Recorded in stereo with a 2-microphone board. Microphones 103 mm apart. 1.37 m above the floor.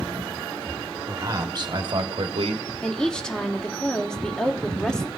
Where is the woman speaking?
10° left (ahead or behind), 0.9 m.